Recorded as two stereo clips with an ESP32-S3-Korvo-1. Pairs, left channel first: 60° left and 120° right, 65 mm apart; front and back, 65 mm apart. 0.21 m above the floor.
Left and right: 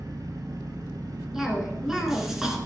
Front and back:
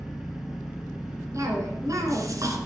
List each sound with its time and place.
0.0 s an engine running: 95° right, 1.7 m
1.3 s a cough: 160° left, 2.5 m